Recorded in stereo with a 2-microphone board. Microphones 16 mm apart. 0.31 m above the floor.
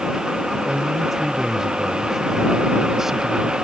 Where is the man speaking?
25° right (ahead or behind).